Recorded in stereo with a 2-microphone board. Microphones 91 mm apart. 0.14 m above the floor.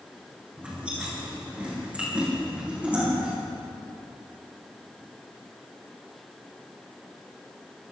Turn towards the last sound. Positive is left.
turn(degrees=-15)  # may be behind; listen again after turning